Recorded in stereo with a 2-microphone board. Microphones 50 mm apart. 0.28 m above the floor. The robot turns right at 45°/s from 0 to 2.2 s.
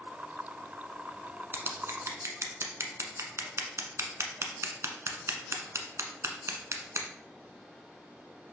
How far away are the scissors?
About 0.9 m.